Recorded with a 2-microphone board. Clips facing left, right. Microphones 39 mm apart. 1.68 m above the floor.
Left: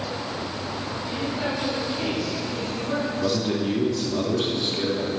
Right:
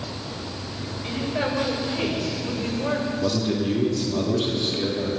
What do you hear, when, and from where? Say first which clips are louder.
1.0 s a woman speaking: right 3 dB; 60° right (ahead or behind), 6.5 m; by 3.1 s 65° right (ahead or behind), 5.5 m
3.2 s a man speaking: even; 5° left (ahead or behind), 3 m